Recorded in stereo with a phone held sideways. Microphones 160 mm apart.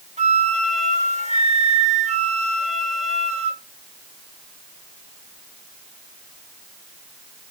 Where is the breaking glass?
No breaking glass in this recording.